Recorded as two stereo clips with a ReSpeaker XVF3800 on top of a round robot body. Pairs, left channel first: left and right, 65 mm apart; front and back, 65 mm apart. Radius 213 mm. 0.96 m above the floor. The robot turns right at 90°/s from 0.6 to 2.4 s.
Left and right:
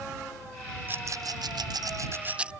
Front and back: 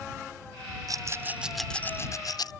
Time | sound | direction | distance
0.9 | a rattle | 155° right | ?